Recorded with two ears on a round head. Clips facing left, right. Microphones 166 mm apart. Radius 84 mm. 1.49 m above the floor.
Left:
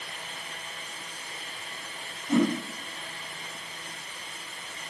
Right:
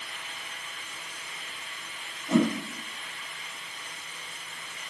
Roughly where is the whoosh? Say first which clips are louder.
Even; right.